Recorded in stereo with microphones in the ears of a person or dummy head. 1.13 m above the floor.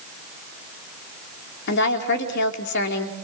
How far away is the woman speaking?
About 3 m.